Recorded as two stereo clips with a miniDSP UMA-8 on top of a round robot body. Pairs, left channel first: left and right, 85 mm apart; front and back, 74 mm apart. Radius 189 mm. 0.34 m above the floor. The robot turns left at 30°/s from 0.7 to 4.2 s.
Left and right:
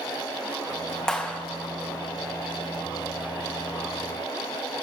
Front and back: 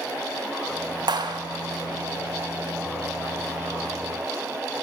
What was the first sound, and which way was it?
A clap, 170° left.